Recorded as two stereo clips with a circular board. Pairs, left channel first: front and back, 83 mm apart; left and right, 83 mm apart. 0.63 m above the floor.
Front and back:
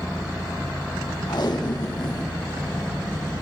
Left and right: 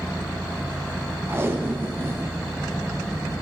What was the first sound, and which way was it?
Tape being pulled, 30° right.